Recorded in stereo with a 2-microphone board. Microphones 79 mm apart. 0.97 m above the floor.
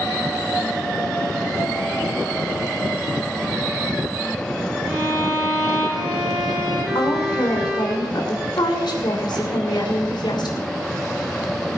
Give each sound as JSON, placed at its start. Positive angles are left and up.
{"t": 4.9, "sound": "a violin", "side_deg": -10, "distance_m": 4.5}
{"t": 7.0, "sound": "a woman speaking", "side_deg": 70, "distance_m": 2.5}